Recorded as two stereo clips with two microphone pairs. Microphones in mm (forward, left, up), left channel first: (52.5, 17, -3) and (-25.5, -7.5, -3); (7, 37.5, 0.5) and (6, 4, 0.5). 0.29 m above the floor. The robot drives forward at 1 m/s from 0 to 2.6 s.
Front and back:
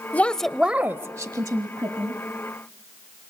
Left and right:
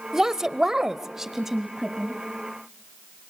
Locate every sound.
0.1 s a woman speaking: 25° right, 1.0 m; by 2.2 s 170° right, 1.8 m